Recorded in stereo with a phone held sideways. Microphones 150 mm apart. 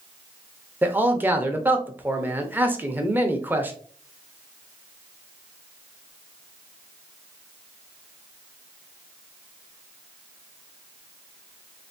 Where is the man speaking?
10° right (ahead or behind), 0.7 m.